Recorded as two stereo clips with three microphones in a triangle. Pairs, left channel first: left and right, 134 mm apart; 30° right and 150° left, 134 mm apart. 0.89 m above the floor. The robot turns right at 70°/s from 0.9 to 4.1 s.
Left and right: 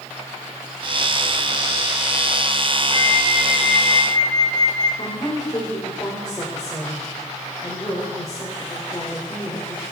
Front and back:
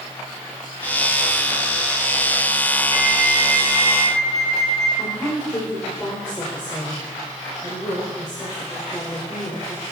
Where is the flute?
50° right, 6 m; by 4.9 s 35° left, 6 m.